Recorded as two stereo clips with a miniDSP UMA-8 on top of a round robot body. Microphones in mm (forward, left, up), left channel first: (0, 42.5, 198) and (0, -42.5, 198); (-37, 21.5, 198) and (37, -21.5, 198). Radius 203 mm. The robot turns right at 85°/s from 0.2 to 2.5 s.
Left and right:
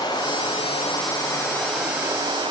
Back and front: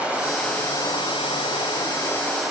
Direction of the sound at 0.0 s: 45° left.